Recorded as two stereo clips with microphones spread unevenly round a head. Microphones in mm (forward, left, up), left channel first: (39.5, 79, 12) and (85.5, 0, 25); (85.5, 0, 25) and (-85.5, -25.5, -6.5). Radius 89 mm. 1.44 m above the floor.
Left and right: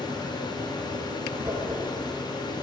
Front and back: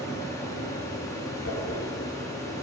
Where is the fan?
85° left, 4.5 m.